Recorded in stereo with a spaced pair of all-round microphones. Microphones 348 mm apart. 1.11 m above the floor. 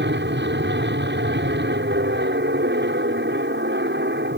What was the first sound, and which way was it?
An aircraft, 30° right (ahead or behind).